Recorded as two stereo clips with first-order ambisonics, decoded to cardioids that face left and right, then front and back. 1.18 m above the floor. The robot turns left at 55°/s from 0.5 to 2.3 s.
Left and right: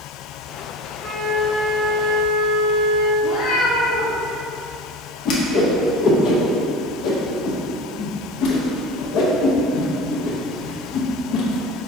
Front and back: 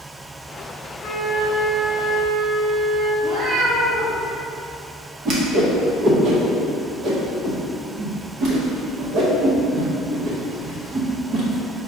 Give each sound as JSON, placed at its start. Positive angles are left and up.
{"t": 1.0, "sound": "a flute", "azimuth_deg": 25, "distance_m": 0.8}
{"t": 3.2, "sound": "a cat meowing", "azimuth_deg": 135, "distance_m": 1.8}
{"t": 5.2, "sound": "a whoosh", "azimuth_deg": 130, "distance_m": 0.8}